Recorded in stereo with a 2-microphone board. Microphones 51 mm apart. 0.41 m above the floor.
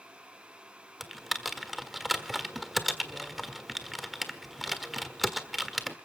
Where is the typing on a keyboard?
Centre (ahead or behind), 1.4 m.